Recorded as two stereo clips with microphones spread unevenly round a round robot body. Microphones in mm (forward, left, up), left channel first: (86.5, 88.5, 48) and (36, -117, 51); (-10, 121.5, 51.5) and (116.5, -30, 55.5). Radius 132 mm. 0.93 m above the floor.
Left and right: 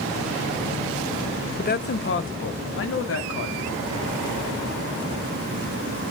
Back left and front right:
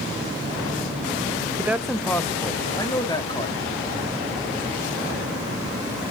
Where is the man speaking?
30° left, 0.6 m; by 3.6 s 65° left, 2.0 m.